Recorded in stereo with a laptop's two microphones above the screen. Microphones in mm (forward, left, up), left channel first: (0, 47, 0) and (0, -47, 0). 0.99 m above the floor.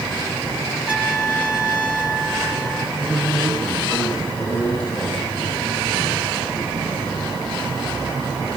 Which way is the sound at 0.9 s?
10° right (ahead or behind).